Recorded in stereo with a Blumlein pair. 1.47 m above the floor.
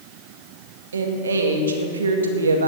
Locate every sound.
0.9 s a woman speaking: 70° right, 2.0 m